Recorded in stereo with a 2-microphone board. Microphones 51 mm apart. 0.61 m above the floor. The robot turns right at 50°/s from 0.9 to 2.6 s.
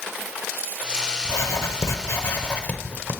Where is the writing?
80° left, 0.7 m; by 3.1 s 150° left, 0.7 m.